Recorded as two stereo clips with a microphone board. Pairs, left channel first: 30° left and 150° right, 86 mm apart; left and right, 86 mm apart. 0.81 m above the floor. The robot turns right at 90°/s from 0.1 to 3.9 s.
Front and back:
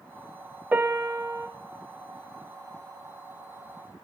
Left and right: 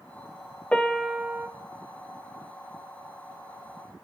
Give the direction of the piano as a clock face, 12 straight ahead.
7 o'clock.